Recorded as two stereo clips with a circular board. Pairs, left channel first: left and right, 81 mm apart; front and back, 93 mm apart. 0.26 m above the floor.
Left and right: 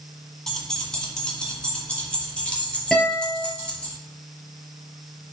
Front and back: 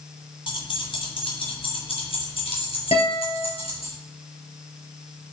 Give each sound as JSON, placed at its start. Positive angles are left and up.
{"t": 0.5, "sound": "keys jangling", "azimuth_deg": 10, "distance_m": 1.6}
{"t": 2.9, "sound": "a guitar", "azimuth_deg": 5, "distance_m": 3.0}